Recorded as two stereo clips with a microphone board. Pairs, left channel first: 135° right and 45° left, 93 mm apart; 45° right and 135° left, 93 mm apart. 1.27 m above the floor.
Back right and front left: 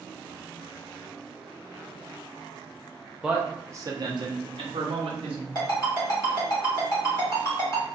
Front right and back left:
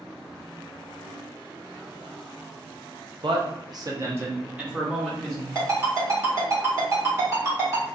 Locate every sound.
3.2 s a man speaking: 125° left, 0.6 m; by 5.5 s 40° left, 1.1 m
5.5 s a ringtone: 175° right, 1.3 m